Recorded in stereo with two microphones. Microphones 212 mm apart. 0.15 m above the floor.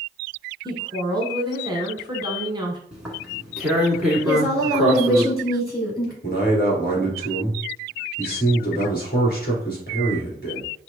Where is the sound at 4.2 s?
50° left (ahead or behind), 2.5 m.